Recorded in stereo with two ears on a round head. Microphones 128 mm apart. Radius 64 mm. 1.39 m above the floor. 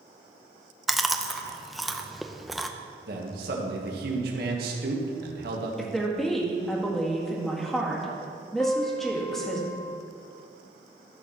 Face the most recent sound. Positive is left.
turn(degrees=15)  # may be behind; listen again after turning